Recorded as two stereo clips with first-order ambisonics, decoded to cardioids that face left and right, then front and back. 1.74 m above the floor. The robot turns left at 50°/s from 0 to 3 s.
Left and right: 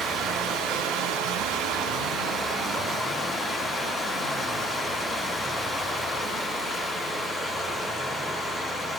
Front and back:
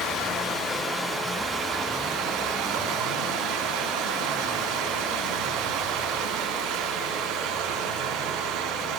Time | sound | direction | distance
0.0 | running water | 25° right | 3.5 m